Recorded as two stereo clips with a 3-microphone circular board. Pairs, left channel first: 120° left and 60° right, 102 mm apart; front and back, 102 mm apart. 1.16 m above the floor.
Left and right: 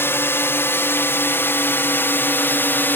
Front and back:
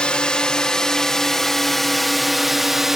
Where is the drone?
75° left; by 3.0 s 100° left.